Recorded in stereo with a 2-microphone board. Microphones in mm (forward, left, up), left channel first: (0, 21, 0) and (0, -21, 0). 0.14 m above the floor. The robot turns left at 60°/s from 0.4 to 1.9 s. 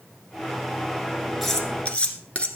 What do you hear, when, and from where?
1.4 s cutlery clinking: centre (ahead or behind), 1.5 m; by 2.5 s 25° left (ahead or behind), 1.5 m